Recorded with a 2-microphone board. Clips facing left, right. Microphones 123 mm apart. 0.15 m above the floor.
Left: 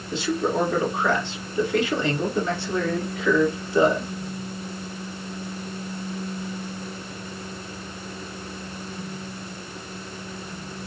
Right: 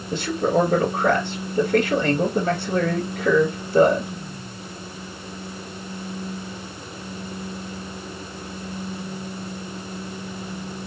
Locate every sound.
0.1 s a man speaking: 50° right (ahead or behind), 1.7 m